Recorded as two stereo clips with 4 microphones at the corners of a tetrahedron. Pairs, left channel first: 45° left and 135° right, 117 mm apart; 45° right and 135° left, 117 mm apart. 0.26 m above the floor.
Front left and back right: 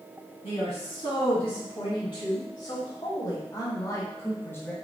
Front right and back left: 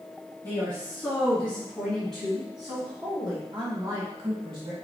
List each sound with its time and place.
0.4 s a woman speaking: 25° left, 2.5 m; by 4.7 s 105° left, 1.7 m